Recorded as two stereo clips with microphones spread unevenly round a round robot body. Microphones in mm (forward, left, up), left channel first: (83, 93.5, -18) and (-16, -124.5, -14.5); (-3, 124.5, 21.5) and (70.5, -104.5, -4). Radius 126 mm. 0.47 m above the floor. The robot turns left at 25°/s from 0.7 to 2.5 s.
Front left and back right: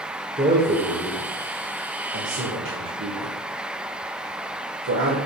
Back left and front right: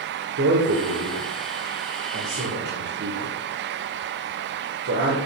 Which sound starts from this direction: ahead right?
A man speaking, at 0.4 s.